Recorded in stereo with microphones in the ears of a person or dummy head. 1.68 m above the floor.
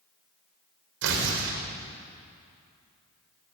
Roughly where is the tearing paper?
Right.